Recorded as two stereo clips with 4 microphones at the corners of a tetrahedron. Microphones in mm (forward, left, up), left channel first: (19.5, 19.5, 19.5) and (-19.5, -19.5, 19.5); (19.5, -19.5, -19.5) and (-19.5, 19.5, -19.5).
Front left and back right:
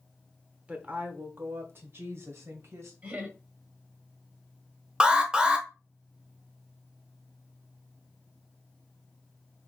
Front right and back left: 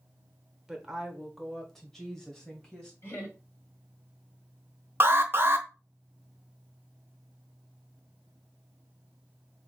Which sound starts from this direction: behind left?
An alarm, at 5.0 s.